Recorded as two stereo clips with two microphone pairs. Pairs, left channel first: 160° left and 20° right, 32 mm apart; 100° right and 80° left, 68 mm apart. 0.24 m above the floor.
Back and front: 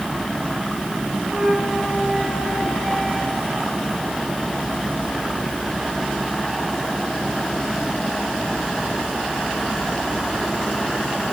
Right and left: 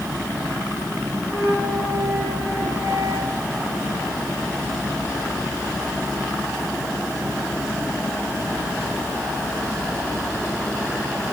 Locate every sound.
1.2 s a flute: 60° left, 7 m